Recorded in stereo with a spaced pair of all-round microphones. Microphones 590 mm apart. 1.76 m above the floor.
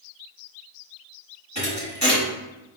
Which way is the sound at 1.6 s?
30° right (ahead or behind).